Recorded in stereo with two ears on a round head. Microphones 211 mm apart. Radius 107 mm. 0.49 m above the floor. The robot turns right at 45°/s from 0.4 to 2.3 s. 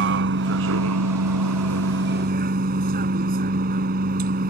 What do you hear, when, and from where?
0.0 s a vehicle: 125° right; by 4.5 s 40° right